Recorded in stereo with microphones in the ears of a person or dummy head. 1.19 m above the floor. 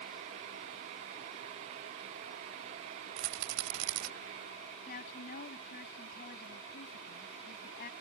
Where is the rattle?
85° right.